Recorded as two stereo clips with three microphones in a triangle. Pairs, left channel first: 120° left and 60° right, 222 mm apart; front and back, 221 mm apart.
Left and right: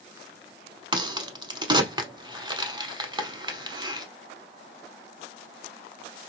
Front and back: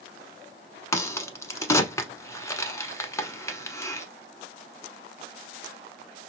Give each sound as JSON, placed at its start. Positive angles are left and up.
{"t": 0.9, "sound": "a crack", "azimuth_deg": -45, "distance_m": 0.6}